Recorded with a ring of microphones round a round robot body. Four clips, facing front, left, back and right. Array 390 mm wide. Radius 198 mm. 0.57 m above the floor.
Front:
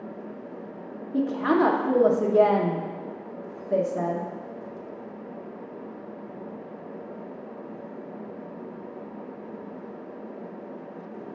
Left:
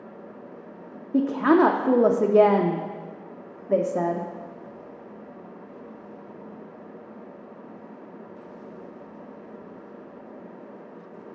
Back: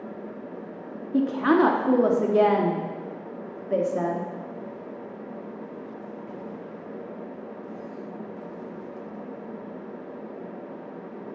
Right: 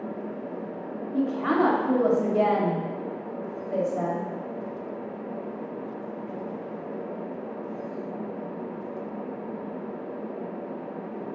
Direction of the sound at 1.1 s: 100° left.